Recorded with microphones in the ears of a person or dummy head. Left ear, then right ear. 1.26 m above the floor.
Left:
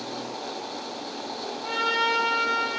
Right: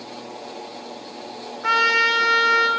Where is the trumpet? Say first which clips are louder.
Right 7 dB; 60° right (ahead or behind), 1.1 m.